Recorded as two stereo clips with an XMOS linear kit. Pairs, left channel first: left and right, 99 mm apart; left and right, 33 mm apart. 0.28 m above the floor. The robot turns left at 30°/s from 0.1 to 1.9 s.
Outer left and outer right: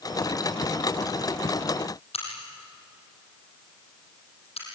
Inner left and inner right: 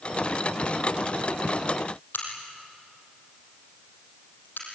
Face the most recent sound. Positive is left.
turn(degrees=80)